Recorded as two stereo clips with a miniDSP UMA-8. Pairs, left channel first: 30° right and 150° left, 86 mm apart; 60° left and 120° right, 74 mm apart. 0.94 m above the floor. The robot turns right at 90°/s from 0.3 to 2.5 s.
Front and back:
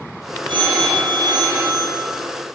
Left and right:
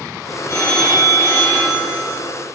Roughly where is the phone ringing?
Left.